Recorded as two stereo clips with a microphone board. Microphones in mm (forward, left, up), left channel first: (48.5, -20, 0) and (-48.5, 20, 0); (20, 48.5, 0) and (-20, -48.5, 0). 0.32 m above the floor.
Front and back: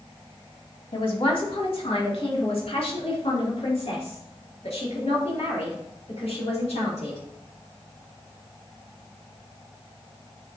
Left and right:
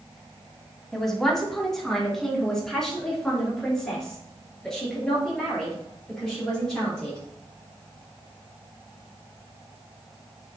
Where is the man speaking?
20° right, 1.9 m; by 7.2 s 15° right, 7 m.